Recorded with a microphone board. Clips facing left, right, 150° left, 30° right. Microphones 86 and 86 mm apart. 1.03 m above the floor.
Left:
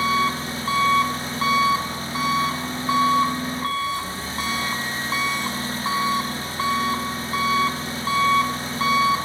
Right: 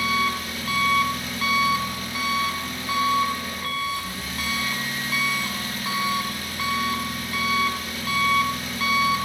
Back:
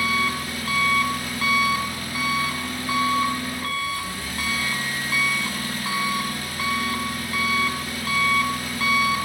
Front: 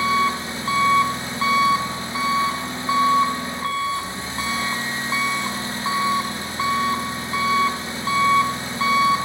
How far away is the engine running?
About 0.8 m.